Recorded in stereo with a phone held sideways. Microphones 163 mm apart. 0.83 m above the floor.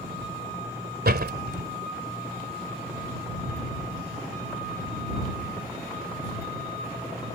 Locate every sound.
1.1 s a door slam: 80° right